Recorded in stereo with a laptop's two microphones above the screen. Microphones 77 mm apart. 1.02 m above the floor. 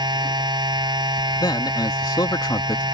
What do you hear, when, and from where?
0.0 s a machine running: 70° right (ahead or behind)
1.4 s a man speaking: 60° left (ahead or behind)